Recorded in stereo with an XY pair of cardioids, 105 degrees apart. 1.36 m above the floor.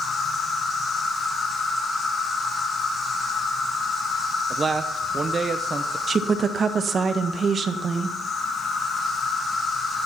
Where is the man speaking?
30° right, 0.9 m.